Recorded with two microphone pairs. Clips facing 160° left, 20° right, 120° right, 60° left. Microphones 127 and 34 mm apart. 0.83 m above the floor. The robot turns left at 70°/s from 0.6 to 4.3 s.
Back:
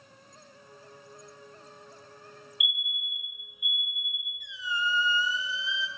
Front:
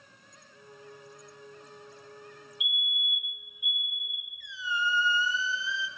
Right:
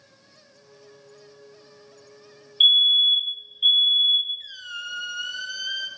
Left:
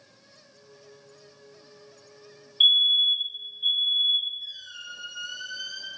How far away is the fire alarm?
About 1.9 m.